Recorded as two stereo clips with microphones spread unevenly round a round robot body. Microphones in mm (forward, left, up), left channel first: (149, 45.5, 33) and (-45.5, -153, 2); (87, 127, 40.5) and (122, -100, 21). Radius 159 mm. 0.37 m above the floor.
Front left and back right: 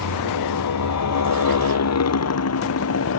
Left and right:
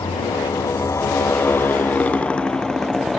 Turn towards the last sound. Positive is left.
turn(degrees=10)